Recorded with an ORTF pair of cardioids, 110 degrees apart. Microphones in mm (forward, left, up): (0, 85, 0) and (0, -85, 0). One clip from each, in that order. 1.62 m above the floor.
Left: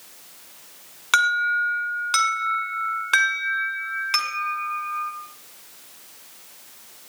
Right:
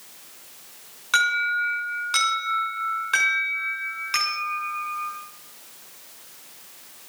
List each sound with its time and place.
1.1 s an alarm: 45° left, 6.5 m